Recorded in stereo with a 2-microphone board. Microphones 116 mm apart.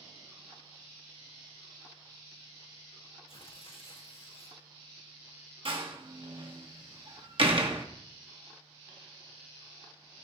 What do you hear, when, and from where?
3.3 s tearing paper: 55° left (ahead or behind), 1.7 m
5.7 s a door slam: 55° right (ahead or behind), 1.6 m